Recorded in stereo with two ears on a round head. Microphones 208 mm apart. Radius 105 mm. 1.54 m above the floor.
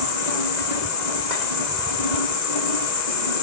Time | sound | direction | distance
0.0 | an insect | 80° left | 7 m